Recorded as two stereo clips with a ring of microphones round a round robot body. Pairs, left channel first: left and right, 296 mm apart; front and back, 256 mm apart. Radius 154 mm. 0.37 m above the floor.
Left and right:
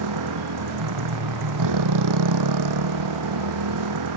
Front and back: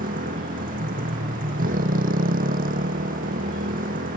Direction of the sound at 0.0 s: 115° right.